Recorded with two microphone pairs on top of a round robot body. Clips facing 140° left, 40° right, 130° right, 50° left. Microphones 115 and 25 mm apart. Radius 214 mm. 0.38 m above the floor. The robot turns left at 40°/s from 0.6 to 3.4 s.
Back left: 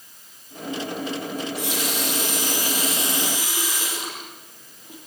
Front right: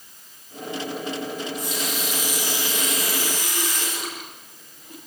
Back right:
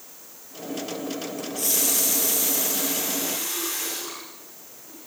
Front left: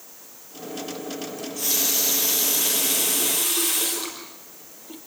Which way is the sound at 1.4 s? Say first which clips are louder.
Back left 2 dB, front left 1 dB; 140° left.